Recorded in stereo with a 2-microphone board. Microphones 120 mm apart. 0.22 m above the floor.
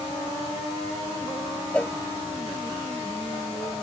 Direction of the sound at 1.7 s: 10° left (ahead or behind).